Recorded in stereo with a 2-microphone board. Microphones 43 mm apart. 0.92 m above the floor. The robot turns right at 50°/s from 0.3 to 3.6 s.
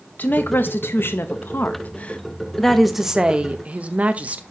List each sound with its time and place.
0.2 s a woman speaking: 55° left, 0.7 m; by 4.4 s 140° right, 0.7 m